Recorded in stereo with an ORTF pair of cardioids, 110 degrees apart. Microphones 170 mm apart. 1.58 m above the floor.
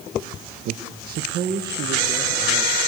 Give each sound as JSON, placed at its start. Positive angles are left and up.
{"t": 0.7, "sound": "a man speaking", "azimuth_deg": -65, "distance_m": 1.6}